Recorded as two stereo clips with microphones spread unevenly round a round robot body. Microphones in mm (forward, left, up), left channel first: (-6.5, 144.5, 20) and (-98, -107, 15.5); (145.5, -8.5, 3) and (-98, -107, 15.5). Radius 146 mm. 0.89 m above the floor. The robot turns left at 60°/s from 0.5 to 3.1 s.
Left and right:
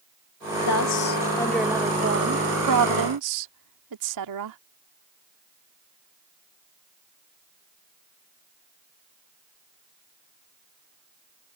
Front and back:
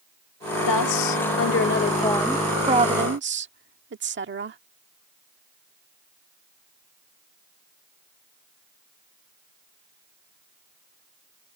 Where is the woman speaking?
40° left; by 4.6 s 110° right.